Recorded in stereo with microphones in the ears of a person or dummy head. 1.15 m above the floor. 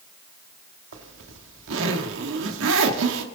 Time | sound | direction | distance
0.9 | a zipper | 80° right | 1.7 m